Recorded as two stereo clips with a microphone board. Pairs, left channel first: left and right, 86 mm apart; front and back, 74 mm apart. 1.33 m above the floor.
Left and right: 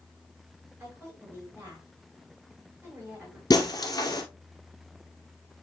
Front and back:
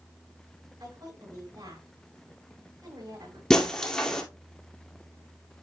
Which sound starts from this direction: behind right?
A woman speaking, at 0.8 s.